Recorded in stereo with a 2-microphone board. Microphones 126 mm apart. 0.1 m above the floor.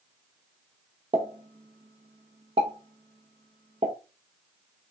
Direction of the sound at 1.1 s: 55° right (ahead or behind).